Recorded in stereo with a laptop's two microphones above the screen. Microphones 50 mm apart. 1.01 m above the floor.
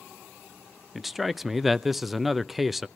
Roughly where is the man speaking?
Centre.